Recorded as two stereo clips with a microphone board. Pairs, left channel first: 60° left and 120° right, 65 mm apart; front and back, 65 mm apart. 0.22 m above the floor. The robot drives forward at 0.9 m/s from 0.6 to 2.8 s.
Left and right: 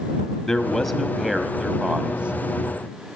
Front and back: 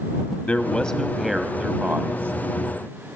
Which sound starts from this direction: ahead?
A man speaking, at 0.5 s.